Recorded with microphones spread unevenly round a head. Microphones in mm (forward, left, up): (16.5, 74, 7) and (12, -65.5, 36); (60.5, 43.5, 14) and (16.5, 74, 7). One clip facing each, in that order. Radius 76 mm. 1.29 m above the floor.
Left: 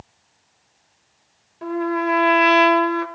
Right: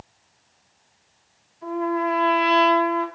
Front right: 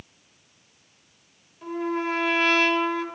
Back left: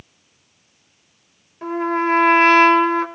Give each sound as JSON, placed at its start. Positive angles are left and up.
{"t": 1.6, "sound": "a trumpet", "azimuth_deg": 110, "distance_m": 3.5}